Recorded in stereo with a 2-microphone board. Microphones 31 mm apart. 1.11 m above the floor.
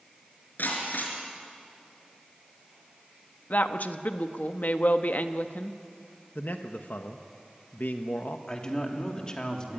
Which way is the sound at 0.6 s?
80° left.